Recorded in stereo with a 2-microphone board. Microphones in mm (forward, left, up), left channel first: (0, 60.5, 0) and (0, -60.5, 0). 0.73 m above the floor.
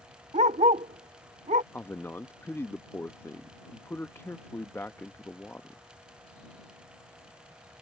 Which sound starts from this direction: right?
A dog barking, at 0.3 s.